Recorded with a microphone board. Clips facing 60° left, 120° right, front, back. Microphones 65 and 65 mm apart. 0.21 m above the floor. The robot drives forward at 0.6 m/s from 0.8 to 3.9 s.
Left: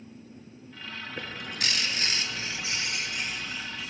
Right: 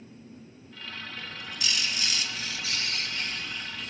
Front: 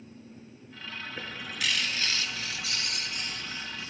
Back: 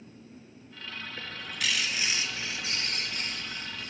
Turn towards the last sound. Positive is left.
turn(degrees=145)